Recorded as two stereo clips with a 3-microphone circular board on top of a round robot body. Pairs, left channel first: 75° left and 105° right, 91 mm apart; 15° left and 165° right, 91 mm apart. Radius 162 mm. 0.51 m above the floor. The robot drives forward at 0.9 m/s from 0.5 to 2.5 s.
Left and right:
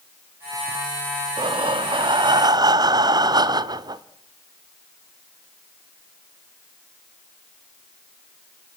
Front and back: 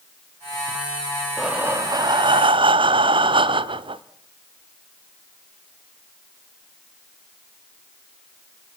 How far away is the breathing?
About 0.8 m.